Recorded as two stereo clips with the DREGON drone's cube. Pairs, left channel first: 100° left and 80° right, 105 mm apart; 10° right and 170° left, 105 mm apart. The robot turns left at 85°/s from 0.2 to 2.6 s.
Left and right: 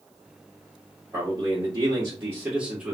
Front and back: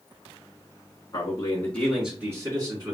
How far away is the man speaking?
About 1.4 m.